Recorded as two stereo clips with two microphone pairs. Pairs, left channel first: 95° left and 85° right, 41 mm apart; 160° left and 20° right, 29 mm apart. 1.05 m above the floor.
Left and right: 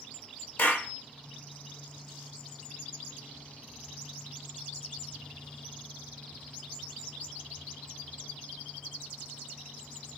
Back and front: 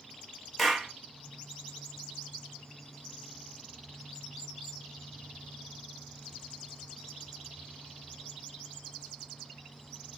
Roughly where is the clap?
Left.